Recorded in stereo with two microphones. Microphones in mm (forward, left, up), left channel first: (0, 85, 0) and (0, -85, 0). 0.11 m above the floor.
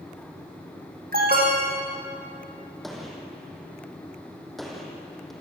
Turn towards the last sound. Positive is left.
turn(degrees=0)  # may be behind; listen again after turning